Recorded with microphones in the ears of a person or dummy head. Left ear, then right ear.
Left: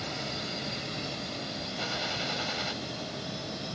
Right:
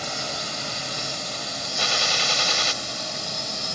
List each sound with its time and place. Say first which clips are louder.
0.0 s a drone: right 7 dB; 45° right (ahead or behind); by 3.8 s 55° right (ahead or behind)
1.8 s a gunshot: right 13 dB; 65° right (ahead or behind)